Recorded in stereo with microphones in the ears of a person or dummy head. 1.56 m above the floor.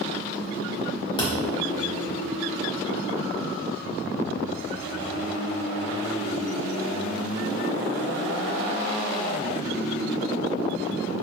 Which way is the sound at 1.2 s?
30° left (ahead or behind).